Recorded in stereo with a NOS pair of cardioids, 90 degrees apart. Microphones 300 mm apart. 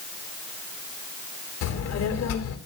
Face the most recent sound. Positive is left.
turn(degrees=60)